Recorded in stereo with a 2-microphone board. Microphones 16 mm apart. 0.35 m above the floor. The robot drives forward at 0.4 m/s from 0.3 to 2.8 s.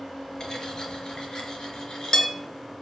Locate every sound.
0.4 s cutlery clinking: 35° left (ahead or behind), 3.5 m; by 2.3 s 45° left (ahead or behind), 3 m